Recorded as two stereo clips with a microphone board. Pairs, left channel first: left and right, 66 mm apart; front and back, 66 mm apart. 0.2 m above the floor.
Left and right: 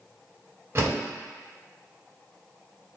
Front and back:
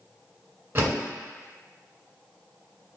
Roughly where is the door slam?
Behind right.